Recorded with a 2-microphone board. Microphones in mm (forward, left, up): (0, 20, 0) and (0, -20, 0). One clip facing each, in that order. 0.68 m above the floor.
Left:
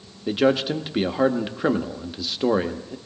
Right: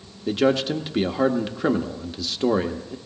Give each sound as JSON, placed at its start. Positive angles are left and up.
{"t": 0.3, "sound": "a man speaking", "side_deg": 10, "distance_m": 0.9}